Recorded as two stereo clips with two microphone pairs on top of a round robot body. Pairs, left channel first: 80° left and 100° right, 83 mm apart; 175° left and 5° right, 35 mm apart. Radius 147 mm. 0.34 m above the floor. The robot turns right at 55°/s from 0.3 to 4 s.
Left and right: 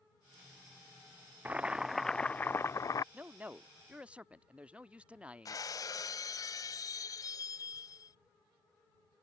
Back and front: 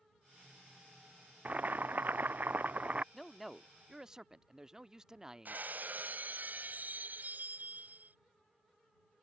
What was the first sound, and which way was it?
Boiling, 45° right.